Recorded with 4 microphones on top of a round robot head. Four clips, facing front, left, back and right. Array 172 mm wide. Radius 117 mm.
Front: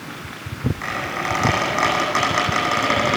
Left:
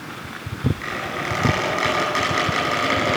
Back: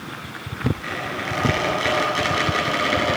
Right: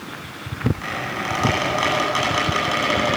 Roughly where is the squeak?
Ahead right.